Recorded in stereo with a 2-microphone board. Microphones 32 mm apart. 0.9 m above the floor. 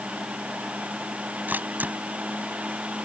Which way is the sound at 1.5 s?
80° right.